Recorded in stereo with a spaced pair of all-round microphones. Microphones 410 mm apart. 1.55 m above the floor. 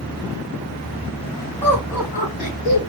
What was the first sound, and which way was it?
Laughter, centre (ahead or behind).